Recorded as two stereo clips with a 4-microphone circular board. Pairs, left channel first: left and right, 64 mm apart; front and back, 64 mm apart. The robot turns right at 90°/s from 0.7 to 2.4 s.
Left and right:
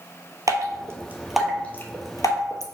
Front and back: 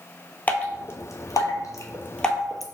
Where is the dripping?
65° right, 0.8 m; by 2.6 s 90° left, 0.8 m.